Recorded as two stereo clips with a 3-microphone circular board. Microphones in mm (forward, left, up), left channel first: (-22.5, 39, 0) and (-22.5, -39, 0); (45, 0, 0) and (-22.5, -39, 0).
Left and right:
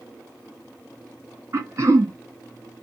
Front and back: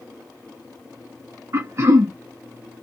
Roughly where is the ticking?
I don't hear ticking.